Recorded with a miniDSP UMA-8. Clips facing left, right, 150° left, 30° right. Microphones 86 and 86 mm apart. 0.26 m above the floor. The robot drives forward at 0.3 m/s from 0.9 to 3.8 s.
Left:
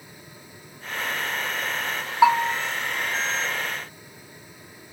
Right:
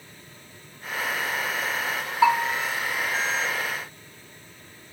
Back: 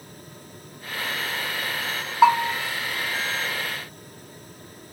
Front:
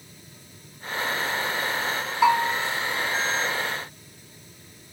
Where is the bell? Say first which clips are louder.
Left 2 dB, back 3 dB; 140° left, 1.7 m; by 2.5 s 145° left, 1.7 m.